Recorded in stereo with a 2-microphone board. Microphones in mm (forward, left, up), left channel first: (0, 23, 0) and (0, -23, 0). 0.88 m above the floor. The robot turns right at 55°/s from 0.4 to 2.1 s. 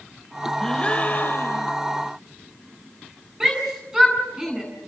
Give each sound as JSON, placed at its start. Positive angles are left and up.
{"t": 0.6, "sound": "a gasp", "azimuth_deg": 10, "distance_m": 1.4}
{"t": 3.4, "sound": "a shout", "side_deg": -15, "distance_m": 9.0}